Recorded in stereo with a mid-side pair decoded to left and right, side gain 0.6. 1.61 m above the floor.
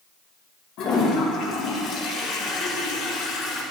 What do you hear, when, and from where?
0.8 s a toilet flushing: 65° left, 2.5 m